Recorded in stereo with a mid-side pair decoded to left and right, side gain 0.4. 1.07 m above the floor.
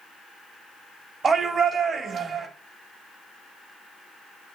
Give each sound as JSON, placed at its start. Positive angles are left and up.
{"t": 1.2, "sound": "a shout", "azimuth_deg": -50, "distance_m": 2.0}